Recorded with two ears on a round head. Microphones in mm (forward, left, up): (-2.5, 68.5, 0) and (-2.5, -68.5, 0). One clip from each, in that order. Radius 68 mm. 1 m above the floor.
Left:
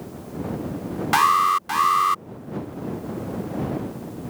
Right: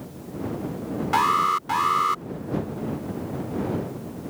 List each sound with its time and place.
1.1 s an alarm: 50° left (ahead or behind)